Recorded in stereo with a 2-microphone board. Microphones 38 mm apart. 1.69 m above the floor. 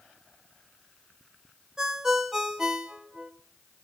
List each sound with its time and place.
1.8 s a ringtone: 15° right (ahead or behind), 1.9 m